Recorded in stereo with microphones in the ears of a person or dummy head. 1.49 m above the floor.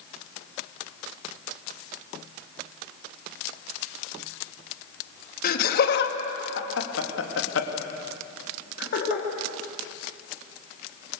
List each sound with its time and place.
5.4 s laughter: 60° left (ahead or behind), 2.5 m; by 9.2 s 55° left (ahead or behind), 3.5 m